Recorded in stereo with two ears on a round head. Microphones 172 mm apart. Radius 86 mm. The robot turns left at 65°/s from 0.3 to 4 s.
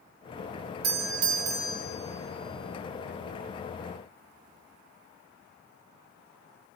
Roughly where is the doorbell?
Right.